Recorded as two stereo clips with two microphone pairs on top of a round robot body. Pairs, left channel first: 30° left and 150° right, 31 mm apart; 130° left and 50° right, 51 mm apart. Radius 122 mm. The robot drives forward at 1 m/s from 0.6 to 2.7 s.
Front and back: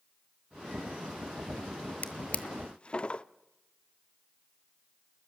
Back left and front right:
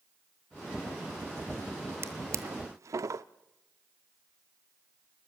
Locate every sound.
2.0 s a drawer: 10° right, 1.1 m; by 3.2 s 30° right, 0.5 m